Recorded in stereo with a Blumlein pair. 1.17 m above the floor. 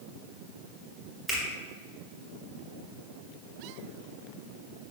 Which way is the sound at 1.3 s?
Straight ahead.